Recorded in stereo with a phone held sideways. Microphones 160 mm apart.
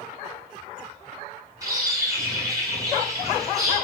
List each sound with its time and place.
1.6 s a bird: 20° right (ahead or behind), 9.5 m